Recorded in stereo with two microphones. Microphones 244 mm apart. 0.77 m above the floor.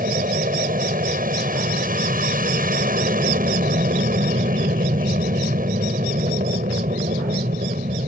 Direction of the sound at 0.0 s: 35° right (ahead or behind).